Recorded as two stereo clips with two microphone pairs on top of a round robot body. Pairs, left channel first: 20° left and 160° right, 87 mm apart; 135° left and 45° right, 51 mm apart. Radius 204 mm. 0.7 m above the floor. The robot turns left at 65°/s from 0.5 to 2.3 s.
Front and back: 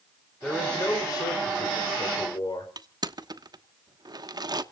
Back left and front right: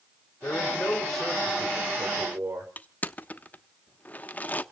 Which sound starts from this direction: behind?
Crushing, at 2.8 s.